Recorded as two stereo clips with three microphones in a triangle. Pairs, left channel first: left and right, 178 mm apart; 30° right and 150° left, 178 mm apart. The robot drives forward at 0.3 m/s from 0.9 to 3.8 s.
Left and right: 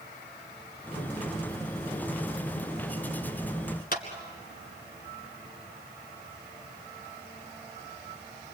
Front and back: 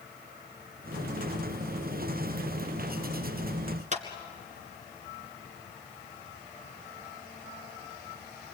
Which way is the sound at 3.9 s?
110° left.